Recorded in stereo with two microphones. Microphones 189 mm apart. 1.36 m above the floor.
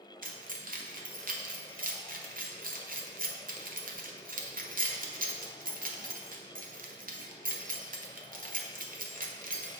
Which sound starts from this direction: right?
Keys jangling, at 0.2 s.